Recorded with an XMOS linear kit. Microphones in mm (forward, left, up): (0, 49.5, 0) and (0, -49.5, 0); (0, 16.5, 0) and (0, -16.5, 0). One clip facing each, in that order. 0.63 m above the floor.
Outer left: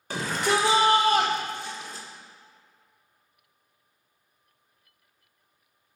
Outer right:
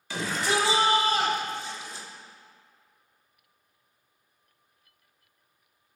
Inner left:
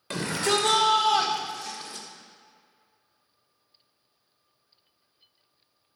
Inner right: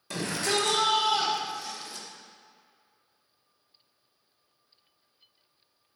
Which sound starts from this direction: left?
A shout, at 0.1 s.